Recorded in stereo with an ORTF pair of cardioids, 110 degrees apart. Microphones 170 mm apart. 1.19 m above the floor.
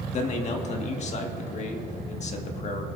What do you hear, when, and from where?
0.1 s a man speaking: 40° left, 1.8 m